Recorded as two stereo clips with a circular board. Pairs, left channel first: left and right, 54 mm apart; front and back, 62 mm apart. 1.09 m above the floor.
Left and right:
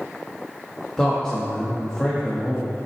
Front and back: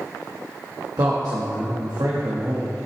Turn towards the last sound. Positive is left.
turn(degrees=170)